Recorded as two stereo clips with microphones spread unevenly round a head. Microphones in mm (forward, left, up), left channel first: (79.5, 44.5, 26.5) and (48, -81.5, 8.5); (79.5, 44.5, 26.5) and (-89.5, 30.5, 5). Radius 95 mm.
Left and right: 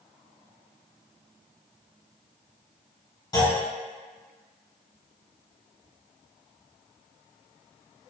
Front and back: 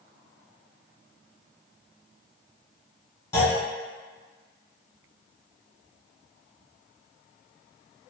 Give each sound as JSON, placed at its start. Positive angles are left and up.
{"t": 3.3, "sound": "a clunk", "azimuth_deg": 55, "distance_m": 1.6}